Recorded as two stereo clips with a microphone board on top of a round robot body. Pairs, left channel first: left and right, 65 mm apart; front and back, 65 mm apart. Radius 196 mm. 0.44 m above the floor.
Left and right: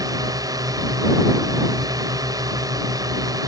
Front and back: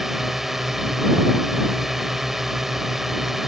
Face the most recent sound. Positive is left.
turn(degrees=-95)